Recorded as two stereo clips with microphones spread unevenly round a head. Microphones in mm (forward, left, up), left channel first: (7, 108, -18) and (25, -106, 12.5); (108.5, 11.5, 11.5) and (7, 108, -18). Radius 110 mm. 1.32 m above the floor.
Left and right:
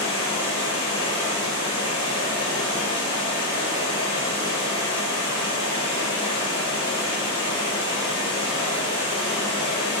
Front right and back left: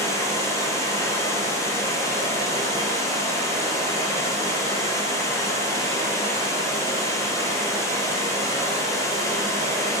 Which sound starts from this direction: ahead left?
Running water, at 0.0 s.